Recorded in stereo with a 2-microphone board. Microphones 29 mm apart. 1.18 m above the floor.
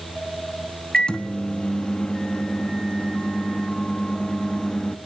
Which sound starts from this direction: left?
A microwave, at 0.9 s.